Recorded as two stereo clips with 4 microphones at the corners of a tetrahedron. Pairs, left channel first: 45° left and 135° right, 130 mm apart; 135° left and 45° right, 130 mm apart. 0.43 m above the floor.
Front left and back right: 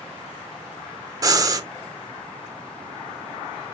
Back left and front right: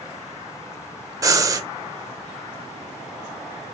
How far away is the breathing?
About 1.1 m.